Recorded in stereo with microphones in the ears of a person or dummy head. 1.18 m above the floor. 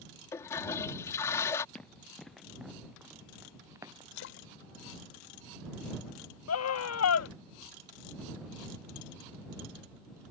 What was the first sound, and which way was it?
A toilet flushing, 20° left (ahead or behind).